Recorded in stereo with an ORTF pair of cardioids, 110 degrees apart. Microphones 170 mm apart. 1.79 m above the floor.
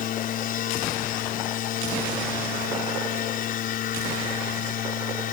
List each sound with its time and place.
0.0 s a machine running: 55° left